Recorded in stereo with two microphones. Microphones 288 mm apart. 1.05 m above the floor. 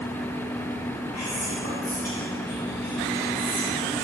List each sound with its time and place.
1.1 s whispering: 55° left (ahead or behind), 1.1 m